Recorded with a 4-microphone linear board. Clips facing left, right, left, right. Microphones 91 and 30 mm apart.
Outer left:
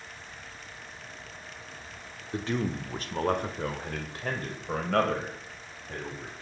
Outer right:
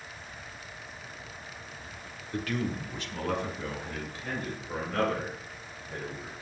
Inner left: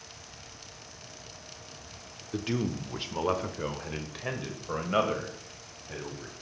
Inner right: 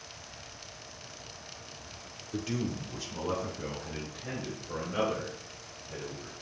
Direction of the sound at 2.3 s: 20° left (ahead or behind).